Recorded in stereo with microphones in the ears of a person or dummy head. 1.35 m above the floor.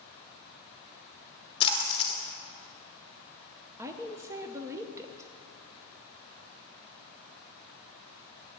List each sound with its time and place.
1.6 s a splash: 25° left (ahead or behind), 1.1 m
3.8 s a woman speaking: 15° right (ahead or behind), 0.6 m